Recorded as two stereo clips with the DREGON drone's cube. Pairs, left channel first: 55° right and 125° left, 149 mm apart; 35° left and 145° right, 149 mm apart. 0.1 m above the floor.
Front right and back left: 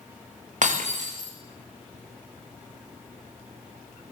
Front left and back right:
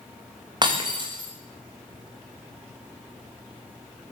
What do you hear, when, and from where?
0.6 s breaking glass: 155° left, 8 m